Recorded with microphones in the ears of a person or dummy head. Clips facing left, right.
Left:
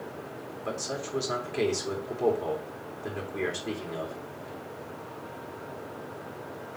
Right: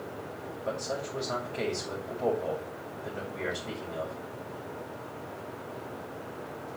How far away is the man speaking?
About 3 m.